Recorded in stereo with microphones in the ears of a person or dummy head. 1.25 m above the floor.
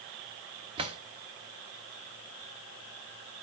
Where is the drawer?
30° right (ahead or behind), 1.5 m.